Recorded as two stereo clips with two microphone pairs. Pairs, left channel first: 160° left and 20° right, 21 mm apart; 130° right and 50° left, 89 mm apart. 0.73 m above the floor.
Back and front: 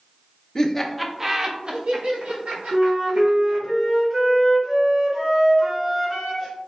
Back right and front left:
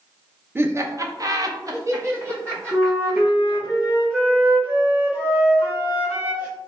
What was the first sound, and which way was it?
Laughter, 105° left.